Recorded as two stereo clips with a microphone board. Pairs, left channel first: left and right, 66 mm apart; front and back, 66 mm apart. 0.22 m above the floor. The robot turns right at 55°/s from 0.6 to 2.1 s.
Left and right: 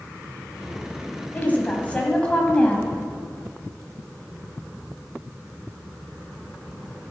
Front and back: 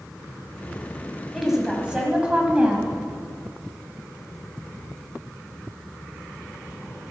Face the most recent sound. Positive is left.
turn(degrees=135)